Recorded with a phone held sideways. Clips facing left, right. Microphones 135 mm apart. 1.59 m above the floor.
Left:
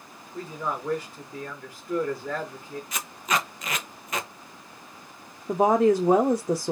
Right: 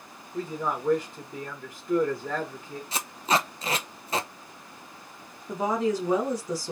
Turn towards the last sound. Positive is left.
turn(degrees=50)  # may be behind; listen again after turning